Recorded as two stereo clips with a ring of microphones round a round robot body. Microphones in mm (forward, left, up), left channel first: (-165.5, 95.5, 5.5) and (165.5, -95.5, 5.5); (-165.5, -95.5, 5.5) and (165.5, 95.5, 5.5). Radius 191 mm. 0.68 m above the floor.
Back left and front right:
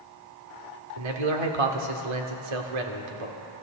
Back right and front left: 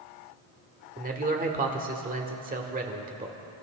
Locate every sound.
1.0 s a man speaking: 40° right, 1.6 m